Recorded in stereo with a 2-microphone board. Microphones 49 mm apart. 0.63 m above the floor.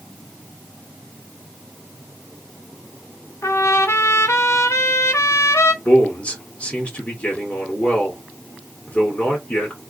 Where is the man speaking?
30° left (ahead or behind), 1.9 m.